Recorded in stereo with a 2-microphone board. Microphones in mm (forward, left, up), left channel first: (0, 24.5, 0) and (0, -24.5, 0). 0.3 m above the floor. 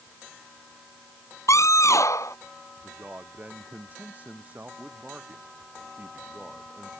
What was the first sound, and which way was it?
A scream, 70° left (ahead or behind).